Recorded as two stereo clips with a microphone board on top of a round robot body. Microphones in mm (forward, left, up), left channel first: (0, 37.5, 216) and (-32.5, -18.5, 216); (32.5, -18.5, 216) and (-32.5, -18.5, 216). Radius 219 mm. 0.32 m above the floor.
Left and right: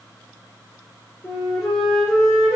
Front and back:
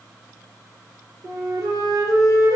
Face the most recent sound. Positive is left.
turn(degrees=140)